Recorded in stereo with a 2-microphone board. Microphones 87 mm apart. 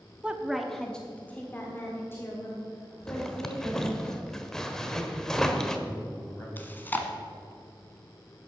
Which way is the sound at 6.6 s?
20° left (ahead or behind).